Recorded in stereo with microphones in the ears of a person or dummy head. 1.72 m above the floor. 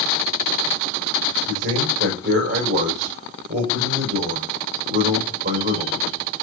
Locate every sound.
1.5 s a man speaking: 65° right (ahead or behind), 6.5 m